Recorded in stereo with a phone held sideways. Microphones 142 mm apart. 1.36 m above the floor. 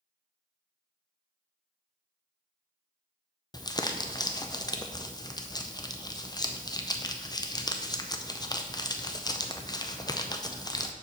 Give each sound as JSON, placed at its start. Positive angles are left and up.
{"t": 3.5, "sound": "crumpling", "side_deg": 30, "distance_m": 0.5}